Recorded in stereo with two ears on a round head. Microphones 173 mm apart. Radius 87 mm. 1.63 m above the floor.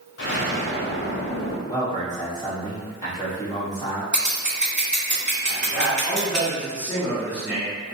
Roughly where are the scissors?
Centre.